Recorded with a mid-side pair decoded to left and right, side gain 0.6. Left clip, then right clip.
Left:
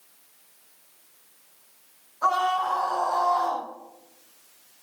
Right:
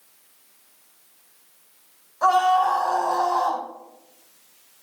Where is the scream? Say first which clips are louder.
Right 5 dB; 60° right, 9 m; by 3.6 s 55° right, 9 m.